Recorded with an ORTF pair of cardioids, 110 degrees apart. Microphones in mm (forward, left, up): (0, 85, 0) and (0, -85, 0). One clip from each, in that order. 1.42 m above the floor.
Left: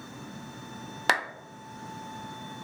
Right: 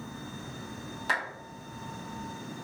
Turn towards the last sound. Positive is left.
turn(degrees=60)